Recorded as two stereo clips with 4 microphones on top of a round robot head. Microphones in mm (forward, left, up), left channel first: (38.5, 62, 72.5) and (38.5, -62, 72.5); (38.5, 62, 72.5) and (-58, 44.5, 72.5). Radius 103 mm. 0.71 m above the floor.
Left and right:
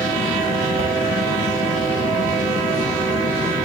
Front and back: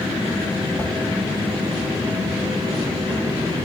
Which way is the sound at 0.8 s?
100° right.